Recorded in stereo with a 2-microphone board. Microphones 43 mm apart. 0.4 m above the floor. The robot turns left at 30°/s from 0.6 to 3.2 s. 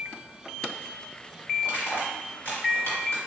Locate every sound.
1.6 s crushing: 50° left (ahead or behind), 1.4 m; by 3.2 s 75° left (ahead or behind), 1.4 m